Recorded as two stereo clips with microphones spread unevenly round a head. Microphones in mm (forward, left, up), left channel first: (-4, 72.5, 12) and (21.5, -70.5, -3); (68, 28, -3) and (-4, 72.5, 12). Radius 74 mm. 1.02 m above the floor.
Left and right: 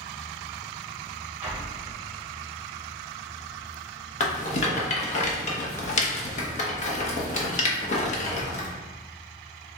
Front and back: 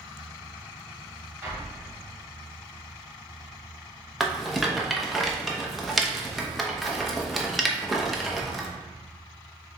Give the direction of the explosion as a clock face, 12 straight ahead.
5 o'clock.